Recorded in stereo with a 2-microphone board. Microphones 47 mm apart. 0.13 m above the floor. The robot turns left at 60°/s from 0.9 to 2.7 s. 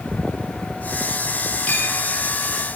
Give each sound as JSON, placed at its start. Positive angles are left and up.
{"t": 1.7, "sound": "a clink", "side_deg": 25, "distance_m": 2.0}